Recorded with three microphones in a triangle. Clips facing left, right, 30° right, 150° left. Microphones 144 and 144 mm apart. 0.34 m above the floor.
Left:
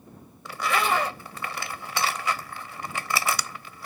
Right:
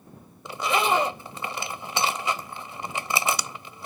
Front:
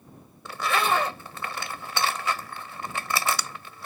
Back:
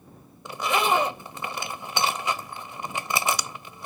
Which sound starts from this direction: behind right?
A zipper, at 0.5 s.